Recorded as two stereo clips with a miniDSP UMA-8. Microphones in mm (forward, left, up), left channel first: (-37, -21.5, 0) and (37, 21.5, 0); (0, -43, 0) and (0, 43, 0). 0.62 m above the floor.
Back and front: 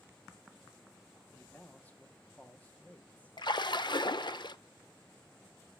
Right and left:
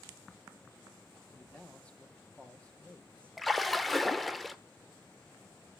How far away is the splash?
About 0.6 m.